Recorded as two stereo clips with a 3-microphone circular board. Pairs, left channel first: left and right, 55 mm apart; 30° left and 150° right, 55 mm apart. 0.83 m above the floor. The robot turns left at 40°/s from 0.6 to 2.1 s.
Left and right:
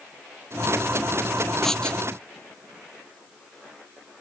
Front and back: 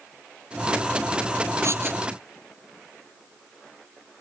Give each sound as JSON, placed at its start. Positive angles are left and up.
{"t": 1.6, "sound": "writing", "azimuth_deg": 175}